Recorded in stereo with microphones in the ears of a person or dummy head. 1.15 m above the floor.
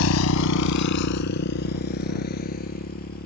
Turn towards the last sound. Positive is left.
turn(degrees=45)  # may be behind; listen again after turning